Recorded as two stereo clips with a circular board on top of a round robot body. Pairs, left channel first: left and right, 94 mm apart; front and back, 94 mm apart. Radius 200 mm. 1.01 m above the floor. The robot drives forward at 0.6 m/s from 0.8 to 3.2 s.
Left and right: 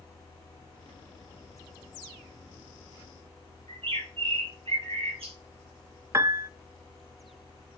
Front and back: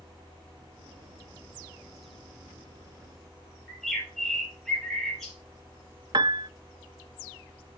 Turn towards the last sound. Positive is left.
turn(degrees=-145)